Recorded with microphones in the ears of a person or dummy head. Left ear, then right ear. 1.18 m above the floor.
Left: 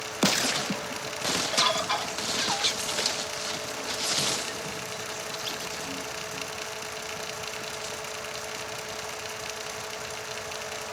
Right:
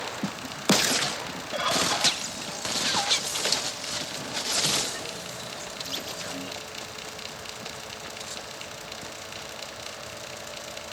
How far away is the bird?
About 1.7 m.